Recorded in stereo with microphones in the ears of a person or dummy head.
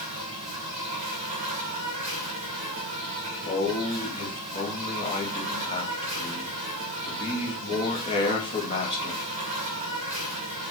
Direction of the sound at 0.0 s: 35° right (ahead or behind).